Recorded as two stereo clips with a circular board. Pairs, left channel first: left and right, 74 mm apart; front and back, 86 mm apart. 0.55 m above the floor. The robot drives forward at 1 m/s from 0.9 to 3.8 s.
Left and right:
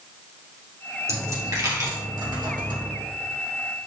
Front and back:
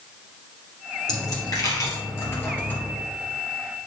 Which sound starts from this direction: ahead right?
A dropped coin, at 1.1 s.